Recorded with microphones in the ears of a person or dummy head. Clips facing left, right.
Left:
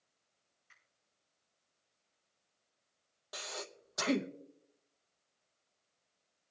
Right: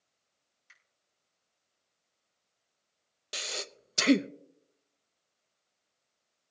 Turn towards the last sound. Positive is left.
turn(degrees=-35)  # may be behind; listen again after turning